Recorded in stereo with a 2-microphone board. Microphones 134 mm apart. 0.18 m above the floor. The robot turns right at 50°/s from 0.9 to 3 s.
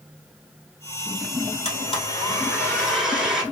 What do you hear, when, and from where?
1.6 s a blender: 115° left, 1.0 m; by 3.4 s 175° right, 1.0 m